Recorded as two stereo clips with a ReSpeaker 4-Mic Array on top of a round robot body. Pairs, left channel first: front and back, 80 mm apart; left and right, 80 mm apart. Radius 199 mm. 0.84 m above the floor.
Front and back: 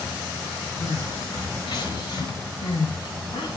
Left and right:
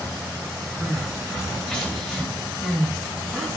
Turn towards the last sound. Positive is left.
turn(degrees=5)